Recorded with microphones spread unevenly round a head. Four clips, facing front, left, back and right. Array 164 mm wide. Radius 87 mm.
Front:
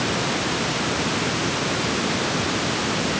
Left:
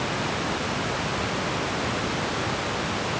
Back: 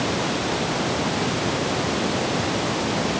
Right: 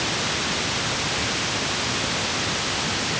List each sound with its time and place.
Only background noise.